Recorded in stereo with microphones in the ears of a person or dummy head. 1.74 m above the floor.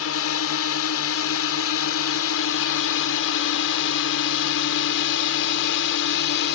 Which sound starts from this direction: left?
A drone, at 0.0 s.